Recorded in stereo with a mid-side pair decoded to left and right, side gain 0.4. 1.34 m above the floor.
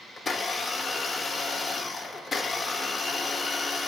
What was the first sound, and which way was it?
A blender, 40° left.